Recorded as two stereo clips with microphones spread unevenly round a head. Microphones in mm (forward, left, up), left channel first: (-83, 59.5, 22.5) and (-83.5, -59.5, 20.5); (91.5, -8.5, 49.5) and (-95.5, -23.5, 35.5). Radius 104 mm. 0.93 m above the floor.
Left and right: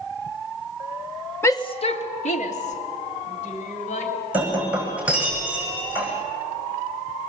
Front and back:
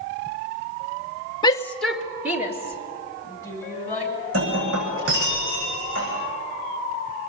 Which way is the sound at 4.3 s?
170° right.